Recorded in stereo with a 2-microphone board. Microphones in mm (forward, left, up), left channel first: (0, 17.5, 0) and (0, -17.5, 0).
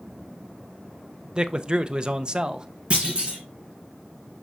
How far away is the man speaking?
About 0.5 m.